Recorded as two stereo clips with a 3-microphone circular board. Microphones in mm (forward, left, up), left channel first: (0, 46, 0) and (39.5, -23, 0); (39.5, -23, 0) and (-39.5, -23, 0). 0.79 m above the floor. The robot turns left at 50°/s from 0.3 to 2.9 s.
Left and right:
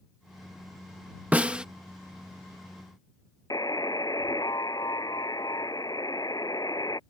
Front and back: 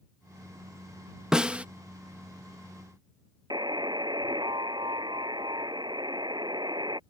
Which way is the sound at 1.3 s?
110° right.